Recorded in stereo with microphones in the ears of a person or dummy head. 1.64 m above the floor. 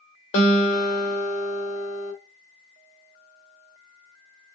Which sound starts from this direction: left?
A guitar, at 0.3 s.